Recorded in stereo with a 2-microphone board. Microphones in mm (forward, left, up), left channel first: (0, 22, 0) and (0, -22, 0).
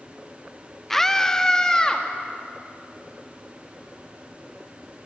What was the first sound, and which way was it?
A scream, 10° left (ahead or behind).